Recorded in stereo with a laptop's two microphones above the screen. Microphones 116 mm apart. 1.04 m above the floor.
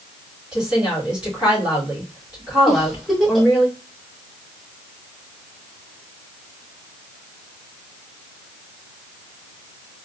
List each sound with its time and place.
0.5 s a woman speaking: 5° right (ahead or behind), 2.5 m
2.7 s a giggle: centre (ahead or behind), 1.2 m